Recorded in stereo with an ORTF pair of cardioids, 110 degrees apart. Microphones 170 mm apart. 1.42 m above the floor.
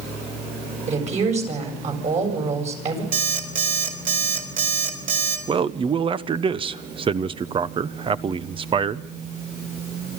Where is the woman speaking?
40° right, 7.5 m.